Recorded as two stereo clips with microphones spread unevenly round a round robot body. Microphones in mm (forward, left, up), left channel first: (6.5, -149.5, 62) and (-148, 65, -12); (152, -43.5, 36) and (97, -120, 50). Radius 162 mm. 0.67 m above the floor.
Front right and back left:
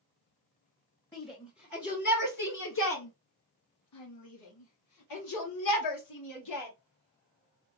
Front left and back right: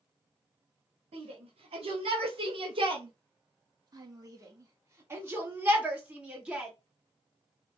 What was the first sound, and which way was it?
A shout, 135° right.